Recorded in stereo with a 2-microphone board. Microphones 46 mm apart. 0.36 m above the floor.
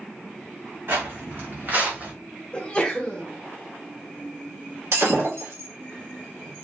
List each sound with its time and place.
0.9 s footsteps: 60° right (ahead or behind), 1.4 m; by 2.1 s 35° right (ahead or behind), 1.0 m
2.5 s a sneeze: 20° left (ahead or behind), 0.8 m
4.9 s breaking glass: 80° right, 1.3 m